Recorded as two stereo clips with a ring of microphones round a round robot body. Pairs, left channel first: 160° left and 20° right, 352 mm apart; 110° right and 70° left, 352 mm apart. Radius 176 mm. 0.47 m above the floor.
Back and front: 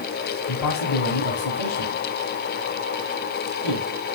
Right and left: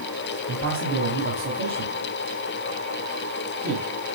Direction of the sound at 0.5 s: 125° left.